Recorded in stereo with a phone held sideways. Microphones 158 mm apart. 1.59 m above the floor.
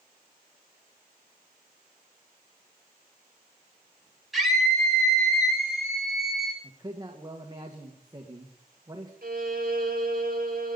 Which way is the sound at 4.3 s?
Centre (ahead or behind).